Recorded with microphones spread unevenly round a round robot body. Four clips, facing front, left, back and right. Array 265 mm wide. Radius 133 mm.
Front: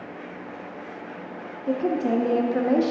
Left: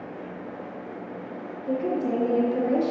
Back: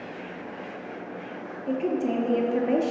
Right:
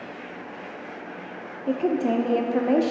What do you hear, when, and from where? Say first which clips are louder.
1.7 s a woman speaking: right 3 dB, front 3 dB; 70° right, 0.7 m